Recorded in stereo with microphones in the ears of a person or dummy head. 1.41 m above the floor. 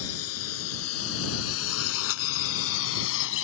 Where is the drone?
80° left; by 3.4 s 75° left (ahead or behind).